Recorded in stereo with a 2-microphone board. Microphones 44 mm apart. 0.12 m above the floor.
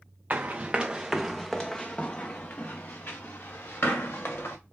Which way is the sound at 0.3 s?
35° right (ahead or behind).